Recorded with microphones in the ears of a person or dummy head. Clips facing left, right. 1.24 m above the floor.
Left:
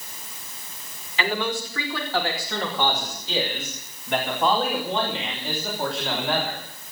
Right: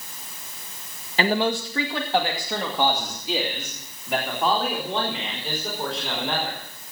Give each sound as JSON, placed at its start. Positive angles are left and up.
{"t": 1.2, "sound": "a man speaking", "side_deg": -30, "distance_m": 1.7}